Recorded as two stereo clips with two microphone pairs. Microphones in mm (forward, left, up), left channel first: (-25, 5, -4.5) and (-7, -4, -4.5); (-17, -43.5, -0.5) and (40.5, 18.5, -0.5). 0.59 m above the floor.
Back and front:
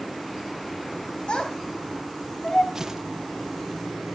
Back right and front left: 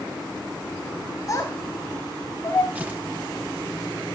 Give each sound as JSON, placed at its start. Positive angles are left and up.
{"t": 1.3, "sound": "a child speaking", "azimuth_deg": 180, "distance_m": 3.0}
{"t": 2.8, "sound": "tearing paper", "azimuth_deg": 0, "distance_m": 1.4}